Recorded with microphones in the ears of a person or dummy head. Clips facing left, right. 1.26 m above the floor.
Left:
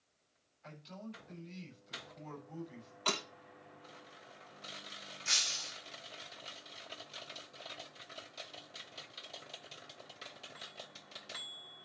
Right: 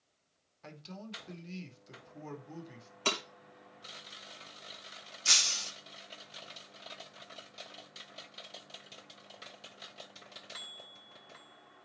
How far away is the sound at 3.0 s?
About 5 m.